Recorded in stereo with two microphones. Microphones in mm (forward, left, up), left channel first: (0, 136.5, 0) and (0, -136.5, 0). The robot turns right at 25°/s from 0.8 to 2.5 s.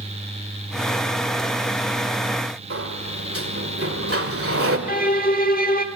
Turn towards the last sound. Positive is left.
turn(degrees=35)  # may be behind; listen again after turning